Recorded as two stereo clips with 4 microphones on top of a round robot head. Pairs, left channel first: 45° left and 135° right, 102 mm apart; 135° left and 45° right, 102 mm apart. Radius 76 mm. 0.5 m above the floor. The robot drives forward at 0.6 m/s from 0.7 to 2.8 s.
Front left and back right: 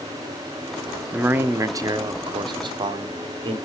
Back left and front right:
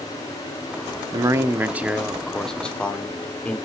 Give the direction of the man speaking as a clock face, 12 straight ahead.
2 o'clock.